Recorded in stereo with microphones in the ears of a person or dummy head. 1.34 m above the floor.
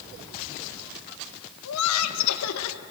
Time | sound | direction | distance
1.6 | laughter | 85° left | 1.2 m